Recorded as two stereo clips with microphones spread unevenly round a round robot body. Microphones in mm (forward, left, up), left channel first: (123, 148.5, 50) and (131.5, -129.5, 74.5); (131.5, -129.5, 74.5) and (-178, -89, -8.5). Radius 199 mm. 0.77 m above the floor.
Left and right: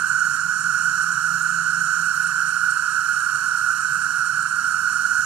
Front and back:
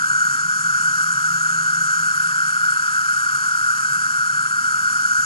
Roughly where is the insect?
Right.